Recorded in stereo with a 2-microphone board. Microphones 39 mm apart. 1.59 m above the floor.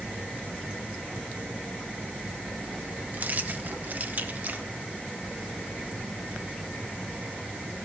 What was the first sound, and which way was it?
Keys jangling, 45° right (ahead or behind).